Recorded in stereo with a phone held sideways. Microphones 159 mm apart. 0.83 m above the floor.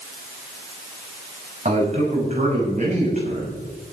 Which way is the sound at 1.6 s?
45° right (ahead or behind).